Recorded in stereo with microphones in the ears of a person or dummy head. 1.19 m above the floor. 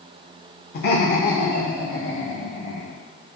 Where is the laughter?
50° left (ahead or behind), 0.7 m; by 3.0 s 60° left (ahead or behind), 3 m.